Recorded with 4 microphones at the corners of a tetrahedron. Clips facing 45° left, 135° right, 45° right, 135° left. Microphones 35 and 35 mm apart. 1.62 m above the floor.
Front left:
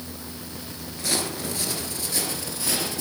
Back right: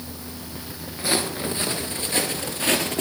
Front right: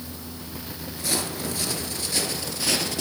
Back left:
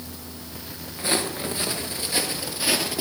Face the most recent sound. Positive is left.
turn(degrees=-150)